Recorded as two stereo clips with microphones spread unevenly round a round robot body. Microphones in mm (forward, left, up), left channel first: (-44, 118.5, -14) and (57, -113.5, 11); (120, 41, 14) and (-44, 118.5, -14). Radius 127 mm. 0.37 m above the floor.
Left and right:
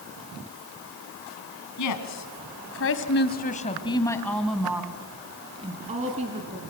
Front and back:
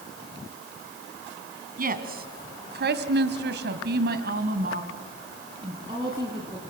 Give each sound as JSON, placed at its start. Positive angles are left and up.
{"t": 1.8, "sound": "a woman speaking", "azimuth_deg": 120, "distance_m": 2.5}